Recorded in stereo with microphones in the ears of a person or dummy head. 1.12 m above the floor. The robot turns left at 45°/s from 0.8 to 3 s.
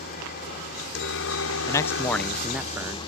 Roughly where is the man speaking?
Ahead left.